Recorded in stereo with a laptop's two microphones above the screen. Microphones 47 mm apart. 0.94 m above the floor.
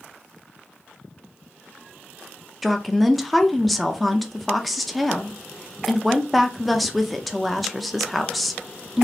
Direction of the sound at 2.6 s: Centre (ahead or behind).